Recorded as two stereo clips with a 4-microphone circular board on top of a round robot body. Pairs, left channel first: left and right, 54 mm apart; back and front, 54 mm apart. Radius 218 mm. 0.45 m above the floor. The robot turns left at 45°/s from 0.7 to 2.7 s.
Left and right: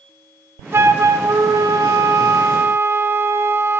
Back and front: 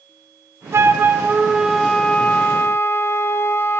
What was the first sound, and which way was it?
A flute, 45° right.